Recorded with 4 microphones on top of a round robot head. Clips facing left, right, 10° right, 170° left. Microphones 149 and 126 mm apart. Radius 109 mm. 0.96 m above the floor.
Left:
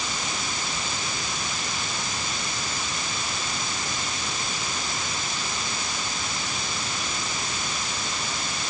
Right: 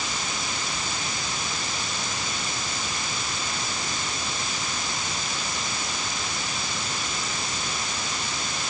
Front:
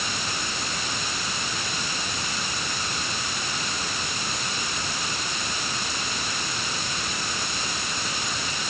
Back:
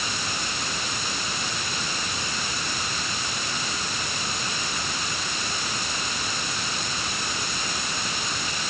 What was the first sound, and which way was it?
Only background noise.